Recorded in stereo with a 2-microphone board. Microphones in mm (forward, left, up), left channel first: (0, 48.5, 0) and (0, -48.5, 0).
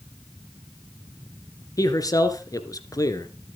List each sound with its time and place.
1.8 s a man speaking: 35° left (ahead or behind), 1.9 m